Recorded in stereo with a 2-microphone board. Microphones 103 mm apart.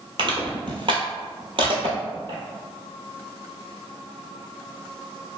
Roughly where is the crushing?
Right.